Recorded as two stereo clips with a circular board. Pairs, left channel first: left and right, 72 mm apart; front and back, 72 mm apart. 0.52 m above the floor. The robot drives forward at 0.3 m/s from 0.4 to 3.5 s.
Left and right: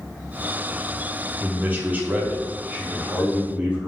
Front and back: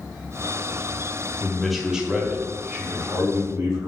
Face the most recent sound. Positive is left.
turn(degrees=-155)